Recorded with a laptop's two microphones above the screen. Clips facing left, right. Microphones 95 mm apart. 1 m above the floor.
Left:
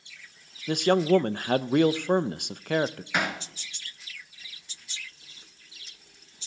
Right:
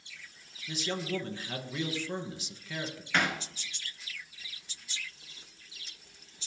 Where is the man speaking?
60° left (ahead or behind), 0.7 m.